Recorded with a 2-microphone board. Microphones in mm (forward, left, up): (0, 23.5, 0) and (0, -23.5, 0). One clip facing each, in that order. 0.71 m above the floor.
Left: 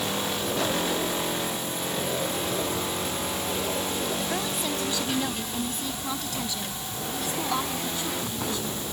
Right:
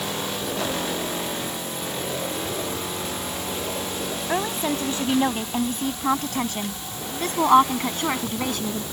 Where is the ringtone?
No ringtone in this recording.